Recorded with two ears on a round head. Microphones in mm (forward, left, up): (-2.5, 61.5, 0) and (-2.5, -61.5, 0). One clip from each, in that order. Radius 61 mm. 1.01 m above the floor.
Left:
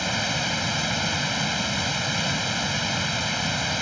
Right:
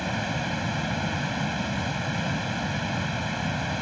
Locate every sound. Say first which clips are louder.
0.0 s running water: left 4 dB; 75° left (ahead or behind)